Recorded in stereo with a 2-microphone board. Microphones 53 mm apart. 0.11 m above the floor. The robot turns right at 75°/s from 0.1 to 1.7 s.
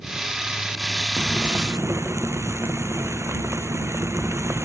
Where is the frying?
160° right; by 4.7 s 120° right.